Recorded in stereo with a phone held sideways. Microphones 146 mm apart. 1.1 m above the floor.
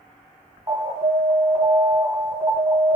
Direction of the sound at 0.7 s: 30° right (ahead or behind).